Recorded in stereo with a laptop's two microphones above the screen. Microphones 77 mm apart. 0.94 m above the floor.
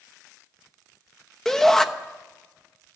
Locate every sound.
1.4 s a shout: 10° left (ahead or behind), 1.0 m